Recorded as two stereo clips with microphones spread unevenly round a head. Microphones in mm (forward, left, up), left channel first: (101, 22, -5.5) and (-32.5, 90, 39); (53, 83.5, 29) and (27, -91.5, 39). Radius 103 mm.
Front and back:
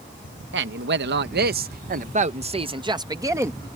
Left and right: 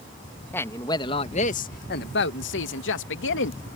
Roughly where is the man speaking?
Behind.